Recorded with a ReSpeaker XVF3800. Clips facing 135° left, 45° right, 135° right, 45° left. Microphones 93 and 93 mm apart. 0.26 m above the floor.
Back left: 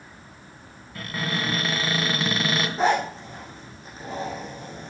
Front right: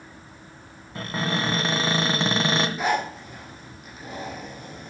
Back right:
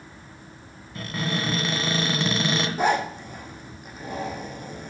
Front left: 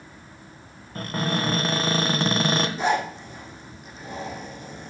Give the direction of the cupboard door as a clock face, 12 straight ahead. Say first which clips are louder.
Front right 2 dB, front left 2 dB; 12 o'clock.